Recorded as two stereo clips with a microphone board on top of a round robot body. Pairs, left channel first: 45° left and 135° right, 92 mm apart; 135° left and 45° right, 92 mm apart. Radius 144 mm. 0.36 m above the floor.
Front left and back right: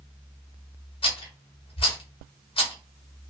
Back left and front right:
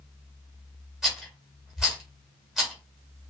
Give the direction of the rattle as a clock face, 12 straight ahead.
11 o'clock.